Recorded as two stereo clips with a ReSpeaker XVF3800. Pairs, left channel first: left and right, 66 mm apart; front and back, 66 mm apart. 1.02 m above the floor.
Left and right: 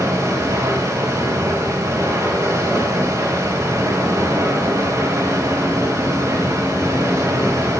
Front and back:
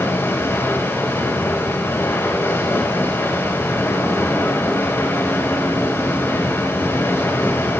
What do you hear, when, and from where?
0.0 s running water: 50° right, 4.5 m